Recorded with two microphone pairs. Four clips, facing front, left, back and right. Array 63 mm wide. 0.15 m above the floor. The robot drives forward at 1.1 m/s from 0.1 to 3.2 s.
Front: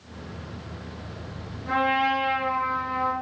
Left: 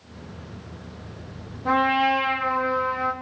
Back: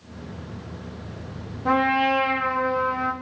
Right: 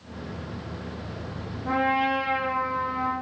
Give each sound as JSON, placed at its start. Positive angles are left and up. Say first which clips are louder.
{"t": 1.6, "sound": "a trumpet", "louder": "left 4 dB, back 3 dB", "azimuth_deg": 150, "distance_m": 8.0}